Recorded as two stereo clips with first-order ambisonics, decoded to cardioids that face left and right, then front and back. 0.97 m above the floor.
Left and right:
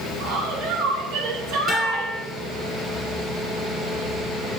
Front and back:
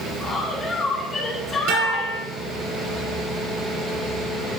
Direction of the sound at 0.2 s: 75° right.